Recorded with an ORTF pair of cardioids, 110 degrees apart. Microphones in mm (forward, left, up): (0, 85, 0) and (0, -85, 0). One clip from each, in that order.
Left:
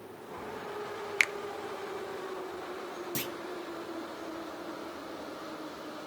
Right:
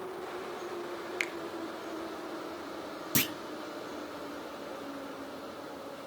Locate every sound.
1.2 s a finger snap: 35° left, 0.5 m
3.1 s a clunk: 35° right, 0.6 m